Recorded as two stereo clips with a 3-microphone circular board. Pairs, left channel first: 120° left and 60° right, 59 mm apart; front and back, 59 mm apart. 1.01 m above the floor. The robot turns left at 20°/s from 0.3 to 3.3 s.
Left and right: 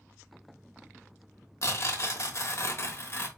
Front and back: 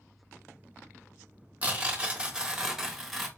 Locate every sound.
1.6 s tearing paper: 125° left, 1.0 m; by 3.3 s 90° left, 1.0 m